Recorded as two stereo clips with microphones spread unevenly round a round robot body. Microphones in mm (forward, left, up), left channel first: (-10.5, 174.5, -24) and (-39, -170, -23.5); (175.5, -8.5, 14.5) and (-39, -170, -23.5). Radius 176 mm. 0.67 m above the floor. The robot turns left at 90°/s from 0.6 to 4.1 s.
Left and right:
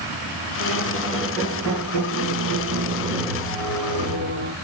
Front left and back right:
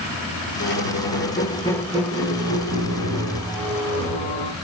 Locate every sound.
0.6 s a squeak: 60° left, 1.6 m; by 4.5 s 105° left, 1.6 m